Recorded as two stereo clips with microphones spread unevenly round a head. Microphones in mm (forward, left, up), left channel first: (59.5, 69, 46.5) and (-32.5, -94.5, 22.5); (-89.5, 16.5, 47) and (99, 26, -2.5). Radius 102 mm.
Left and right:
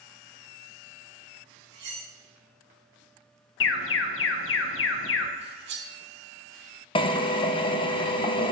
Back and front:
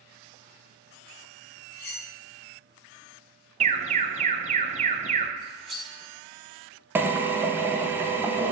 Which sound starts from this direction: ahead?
A drill, at 7.0 s.